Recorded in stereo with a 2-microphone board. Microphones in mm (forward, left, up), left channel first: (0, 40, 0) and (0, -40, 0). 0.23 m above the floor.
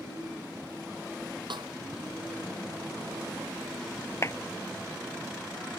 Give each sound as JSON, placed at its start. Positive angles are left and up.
{"t": 1.5, "sound": "a snare drum", "side_deg": -90}
{"t": 4.2, "sound": "a clap", "side_deg": 35}